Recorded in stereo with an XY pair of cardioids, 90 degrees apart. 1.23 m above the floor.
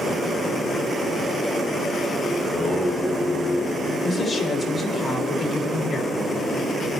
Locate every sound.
2.4 s singing: 20° left, 2 m
4.0 s a woman speaking: 55° left, 4 m